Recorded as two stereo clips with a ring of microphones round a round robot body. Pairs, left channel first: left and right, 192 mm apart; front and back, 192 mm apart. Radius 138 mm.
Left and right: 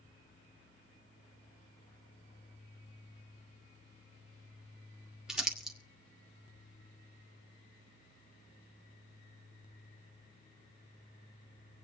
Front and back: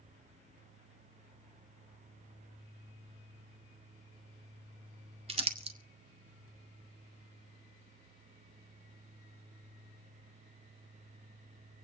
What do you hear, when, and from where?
5.3 s crumpling: 175° right, 1.1 m